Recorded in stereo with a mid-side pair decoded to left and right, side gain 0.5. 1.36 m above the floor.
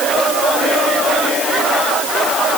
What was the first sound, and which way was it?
Only background noise.